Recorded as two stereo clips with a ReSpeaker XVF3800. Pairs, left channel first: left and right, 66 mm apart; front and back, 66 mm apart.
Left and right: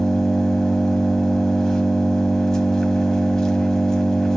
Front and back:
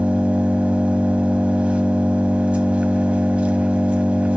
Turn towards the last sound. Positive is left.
turn(degrees=155)